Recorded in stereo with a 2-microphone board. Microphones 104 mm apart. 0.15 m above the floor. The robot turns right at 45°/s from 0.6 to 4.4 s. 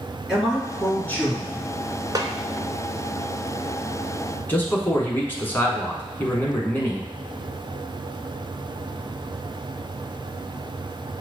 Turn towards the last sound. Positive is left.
turn(degrees=20)  # may be behind; listen again after turning